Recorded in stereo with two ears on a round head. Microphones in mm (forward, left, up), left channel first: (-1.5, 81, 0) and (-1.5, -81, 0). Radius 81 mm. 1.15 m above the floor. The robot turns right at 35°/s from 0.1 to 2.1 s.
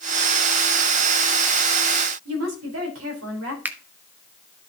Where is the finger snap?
10° right (ahead or behind), 0.6 m.